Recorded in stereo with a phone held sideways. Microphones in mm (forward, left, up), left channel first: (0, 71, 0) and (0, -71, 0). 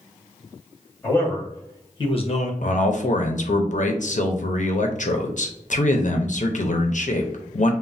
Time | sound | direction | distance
1.0 | a man speaking | 15° left (ahead or behind) | 1.9 m
2.6 | a man speaking | 60° left (ahead or behind) | 0.5 m